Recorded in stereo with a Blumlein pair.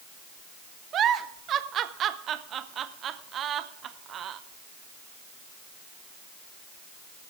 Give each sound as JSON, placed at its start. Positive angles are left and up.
{"t": 0.9, "sound": "a giggle", "azimuth_deg": -30, "distance_m": 0.7}